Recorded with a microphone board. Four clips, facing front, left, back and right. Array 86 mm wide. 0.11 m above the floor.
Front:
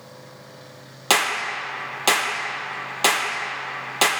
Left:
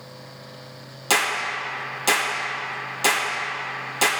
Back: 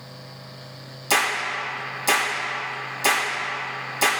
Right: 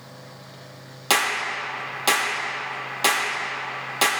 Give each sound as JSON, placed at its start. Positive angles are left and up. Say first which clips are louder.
{"t": 1.1, "sound": "a clap", "louder": "even, front 1 dB", "azimuth_deg": -15, "distance_m": 3.0}